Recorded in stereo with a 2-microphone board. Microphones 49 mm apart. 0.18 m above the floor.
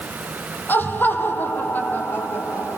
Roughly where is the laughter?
Left.